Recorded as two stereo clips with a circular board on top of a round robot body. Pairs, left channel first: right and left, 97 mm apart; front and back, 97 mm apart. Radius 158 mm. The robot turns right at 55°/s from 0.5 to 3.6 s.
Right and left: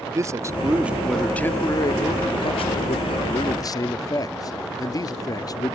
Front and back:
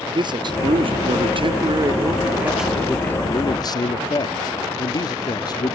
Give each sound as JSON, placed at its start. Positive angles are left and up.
{"t": 0.1, "sound": "a man speaking", "azimuth_deg": 145}